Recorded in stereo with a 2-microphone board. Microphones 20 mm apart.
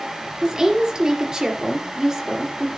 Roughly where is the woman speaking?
Right.